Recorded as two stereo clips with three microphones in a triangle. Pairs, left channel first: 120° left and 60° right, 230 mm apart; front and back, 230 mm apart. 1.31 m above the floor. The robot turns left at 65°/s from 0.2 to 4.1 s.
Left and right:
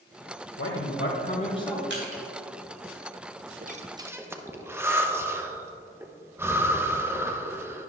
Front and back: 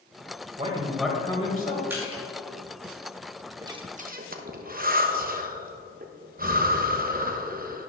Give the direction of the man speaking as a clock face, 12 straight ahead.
8 o'clock.